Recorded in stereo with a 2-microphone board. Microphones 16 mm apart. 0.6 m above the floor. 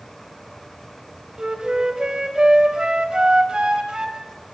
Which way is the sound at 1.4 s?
50° right (ahead or behind).